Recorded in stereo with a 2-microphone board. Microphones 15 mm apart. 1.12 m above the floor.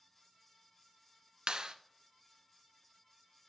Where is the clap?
60° right (ahead or behind), 0.6 m.